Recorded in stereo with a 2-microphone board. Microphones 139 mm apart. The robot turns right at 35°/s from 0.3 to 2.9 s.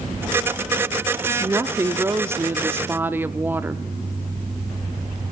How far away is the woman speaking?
About 0.6 m.